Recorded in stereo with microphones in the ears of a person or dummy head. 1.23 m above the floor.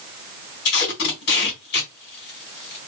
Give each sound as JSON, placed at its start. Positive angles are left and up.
{"t": 0.7, "sound": "tape being pulled", "side_deg": 50, "distance_m": 1.4}